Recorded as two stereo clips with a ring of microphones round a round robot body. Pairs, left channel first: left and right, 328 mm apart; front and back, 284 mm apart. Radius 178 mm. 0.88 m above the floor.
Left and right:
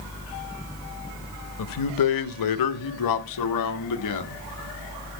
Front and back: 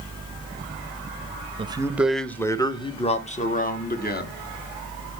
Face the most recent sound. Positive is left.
turn(degrees=55)